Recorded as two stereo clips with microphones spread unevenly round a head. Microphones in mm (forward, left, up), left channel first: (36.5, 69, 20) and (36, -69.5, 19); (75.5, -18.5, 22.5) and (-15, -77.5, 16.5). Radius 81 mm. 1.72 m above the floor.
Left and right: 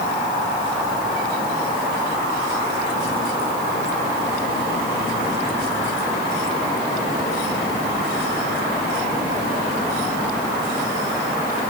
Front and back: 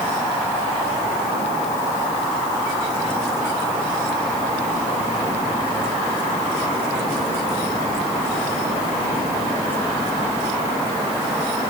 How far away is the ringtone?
No ringtone in this recording.